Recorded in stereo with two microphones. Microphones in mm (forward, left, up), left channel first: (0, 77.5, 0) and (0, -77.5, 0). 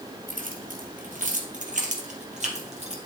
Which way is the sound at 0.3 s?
65° right (ahead or behind).